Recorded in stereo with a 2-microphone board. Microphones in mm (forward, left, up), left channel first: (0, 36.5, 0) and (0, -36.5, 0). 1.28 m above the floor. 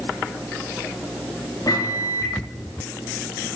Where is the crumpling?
I don't hear crumpling.